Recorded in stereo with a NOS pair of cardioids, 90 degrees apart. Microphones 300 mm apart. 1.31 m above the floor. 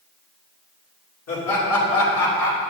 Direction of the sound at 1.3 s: 55° left.